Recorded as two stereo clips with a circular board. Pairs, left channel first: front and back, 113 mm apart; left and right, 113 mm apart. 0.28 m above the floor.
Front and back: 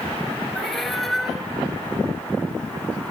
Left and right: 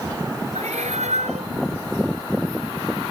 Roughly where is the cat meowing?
Right.